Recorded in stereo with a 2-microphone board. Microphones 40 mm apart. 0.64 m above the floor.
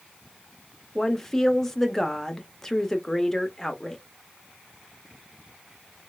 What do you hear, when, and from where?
0.9 s a woman speaking: 10° left (ahead or behind), 0.5 m